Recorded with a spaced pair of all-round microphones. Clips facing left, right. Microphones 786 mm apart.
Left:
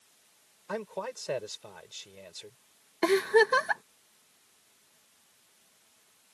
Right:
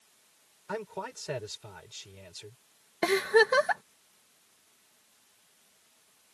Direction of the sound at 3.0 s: 25° right (ahead or behind).